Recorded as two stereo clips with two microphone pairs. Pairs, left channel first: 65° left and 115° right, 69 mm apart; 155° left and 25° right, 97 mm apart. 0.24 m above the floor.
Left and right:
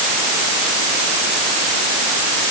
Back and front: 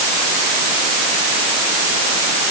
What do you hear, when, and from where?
Only background noise.